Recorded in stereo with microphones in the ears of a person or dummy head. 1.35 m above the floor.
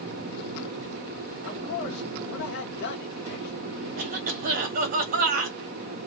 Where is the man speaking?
60° left (ahead or behind), 1.2 m.